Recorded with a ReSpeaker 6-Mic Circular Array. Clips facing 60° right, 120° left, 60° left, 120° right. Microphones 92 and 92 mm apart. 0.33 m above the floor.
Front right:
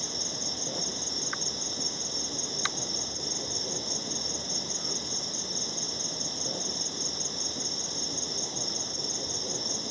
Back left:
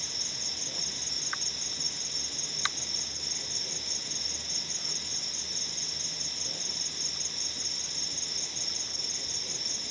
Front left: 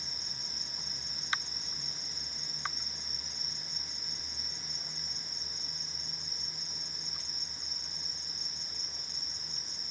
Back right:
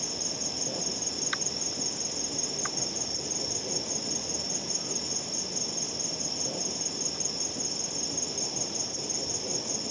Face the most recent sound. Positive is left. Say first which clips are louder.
# front right 8 dB, back right 14 dB
turn(degrees=-115)